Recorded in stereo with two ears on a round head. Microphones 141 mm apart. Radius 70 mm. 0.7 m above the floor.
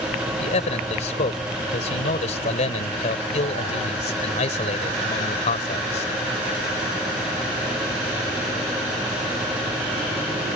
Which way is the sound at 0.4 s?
45° left (ahead or behind).